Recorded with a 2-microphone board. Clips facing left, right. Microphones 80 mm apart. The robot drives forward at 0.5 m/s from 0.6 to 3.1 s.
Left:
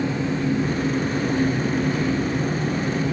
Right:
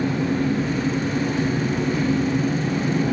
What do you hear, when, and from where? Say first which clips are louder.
0.0 s an engine running: right 2 dB; 50° right (ahead or behind), 3.5 m; by 3.1 s 70° right (ahead or behind), 3 m